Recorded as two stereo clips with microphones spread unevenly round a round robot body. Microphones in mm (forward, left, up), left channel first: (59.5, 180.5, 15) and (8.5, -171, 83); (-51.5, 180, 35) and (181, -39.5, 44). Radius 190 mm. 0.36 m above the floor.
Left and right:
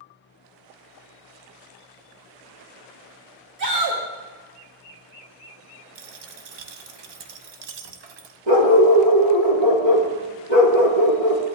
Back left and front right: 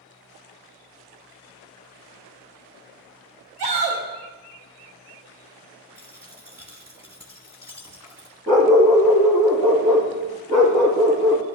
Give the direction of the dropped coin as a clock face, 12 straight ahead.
4 o'clock.